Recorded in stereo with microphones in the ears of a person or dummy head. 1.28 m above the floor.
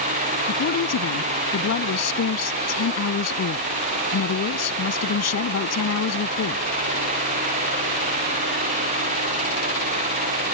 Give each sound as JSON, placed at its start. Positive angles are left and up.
{"t": 0.5, "sound": "a woman speaking", "side_deg": 75}